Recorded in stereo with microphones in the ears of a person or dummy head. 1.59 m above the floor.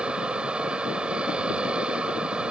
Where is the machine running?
5° right (ahead or behind).